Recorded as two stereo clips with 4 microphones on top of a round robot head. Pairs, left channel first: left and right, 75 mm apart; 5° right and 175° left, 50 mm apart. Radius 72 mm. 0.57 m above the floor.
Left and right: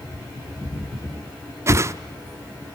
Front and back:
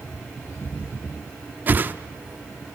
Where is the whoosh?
135° right, 0.8 m.